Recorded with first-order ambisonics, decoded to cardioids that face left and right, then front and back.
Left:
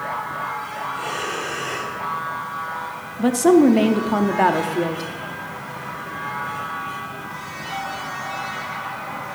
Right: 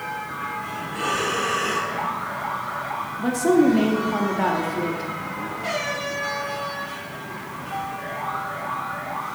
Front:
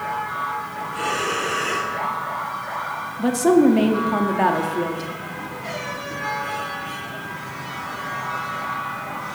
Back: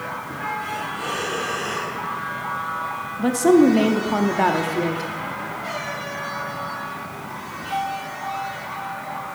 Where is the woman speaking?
95° left, 0.6 m.